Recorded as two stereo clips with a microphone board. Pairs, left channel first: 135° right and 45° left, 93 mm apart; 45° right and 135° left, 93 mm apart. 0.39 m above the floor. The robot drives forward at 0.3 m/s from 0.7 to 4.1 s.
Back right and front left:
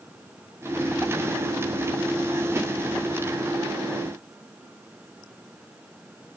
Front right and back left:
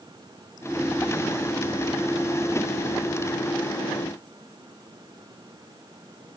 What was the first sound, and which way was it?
Only background noise.